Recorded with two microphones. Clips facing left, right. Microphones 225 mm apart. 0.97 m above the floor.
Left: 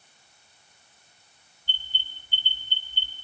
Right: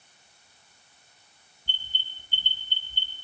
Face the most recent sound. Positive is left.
turn(degrees=-50)  # may be behind; listen again after turning